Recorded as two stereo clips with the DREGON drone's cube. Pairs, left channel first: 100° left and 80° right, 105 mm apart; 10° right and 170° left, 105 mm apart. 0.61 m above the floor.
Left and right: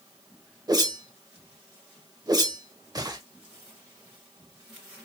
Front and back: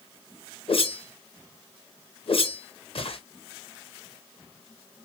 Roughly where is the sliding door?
No sliding door in this recording.